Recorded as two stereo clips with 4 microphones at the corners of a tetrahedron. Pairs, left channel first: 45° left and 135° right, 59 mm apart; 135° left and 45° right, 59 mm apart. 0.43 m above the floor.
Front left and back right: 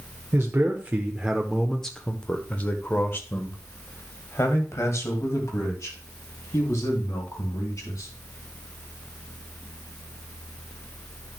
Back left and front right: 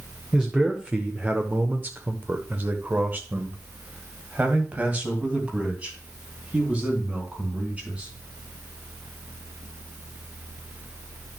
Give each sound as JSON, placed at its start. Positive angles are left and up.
{"t": 0.3, "sound": "a man speaking", "azimuth_deg": -115, "distance_m": 1.1}